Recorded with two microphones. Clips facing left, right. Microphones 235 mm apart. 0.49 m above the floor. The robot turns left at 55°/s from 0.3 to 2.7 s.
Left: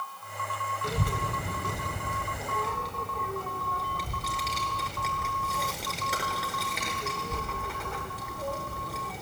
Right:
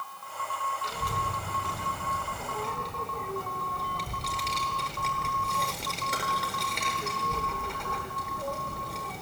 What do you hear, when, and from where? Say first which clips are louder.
0.8 s a child speaking: left 7 dB; 55° left (ahead or behind), 1.1 m; by 9.2 s centre (ahead or behind), 1.1 m